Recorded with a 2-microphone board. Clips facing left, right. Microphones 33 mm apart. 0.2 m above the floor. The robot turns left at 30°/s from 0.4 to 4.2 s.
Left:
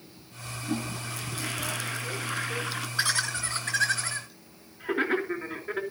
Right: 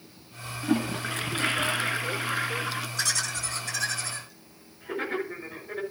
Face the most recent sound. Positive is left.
turn(degrees=55)  # may be behind; listen again after turning